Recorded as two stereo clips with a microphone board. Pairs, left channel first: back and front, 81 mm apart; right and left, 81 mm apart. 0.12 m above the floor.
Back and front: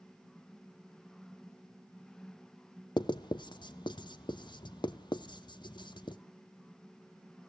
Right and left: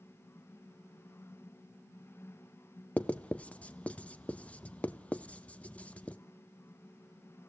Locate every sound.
3.0 s writing: 165° right, 0.7 m